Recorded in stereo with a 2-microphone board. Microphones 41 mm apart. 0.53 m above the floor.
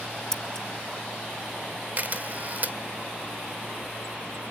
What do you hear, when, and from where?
0.3 s scissors: 15° left (ahead or behind), 0.8 m
2.0 s a camera shutter: 40° right (ahead or behind), 1.5 m